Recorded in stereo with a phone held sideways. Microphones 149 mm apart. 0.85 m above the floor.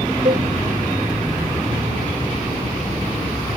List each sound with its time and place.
0.2 s a cowbell: 50° right (ahead or behind)